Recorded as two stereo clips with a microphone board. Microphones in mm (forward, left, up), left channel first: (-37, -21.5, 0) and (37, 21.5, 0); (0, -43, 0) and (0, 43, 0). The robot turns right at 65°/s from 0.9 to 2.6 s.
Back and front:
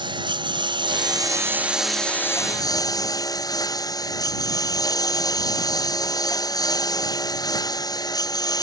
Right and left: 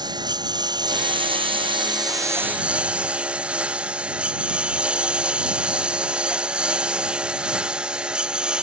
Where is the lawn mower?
55° left; by 8.7 s 170° left.